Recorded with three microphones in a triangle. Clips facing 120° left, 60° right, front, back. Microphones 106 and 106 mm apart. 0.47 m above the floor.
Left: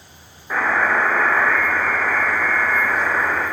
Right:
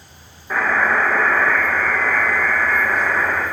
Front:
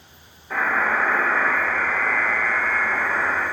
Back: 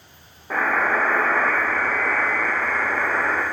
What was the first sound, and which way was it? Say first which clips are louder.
A buzzer: right 1 dB, back 1 dB; 150° right.